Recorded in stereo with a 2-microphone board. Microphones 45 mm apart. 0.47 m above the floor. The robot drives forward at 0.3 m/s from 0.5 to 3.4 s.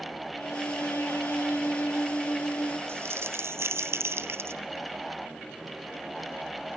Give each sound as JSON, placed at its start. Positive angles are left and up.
{"t": 0.3, "sound": "a violin", "side_deg": 85, "distance_m": 2.5}
{"t": 2.9, "sound": "crumpling", "side_deg": -65, "distance_m": 1.3}